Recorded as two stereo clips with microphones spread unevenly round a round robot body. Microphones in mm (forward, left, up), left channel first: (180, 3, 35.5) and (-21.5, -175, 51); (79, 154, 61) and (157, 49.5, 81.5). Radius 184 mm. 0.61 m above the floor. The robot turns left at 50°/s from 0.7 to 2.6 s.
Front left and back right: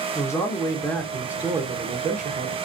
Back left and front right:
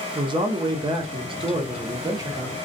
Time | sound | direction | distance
0.1 | a man speaking | 20° right | 0.8 m